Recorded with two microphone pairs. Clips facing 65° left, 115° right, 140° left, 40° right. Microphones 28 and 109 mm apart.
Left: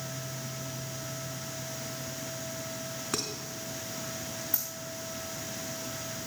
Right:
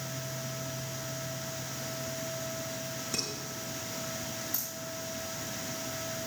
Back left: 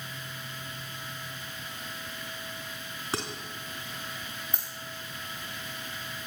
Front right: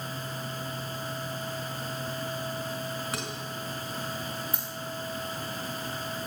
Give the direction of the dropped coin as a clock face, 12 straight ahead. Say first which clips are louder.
Left 1 dB, front right 3 dB; 10 o'clock.